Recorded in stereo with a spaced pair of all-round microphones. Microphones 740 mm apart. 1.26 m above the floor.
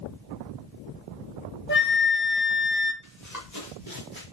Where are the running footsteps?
25° left (ahead or behind), 6.5 m; by 4.2 s 30° left (ahead or behind), 5 m.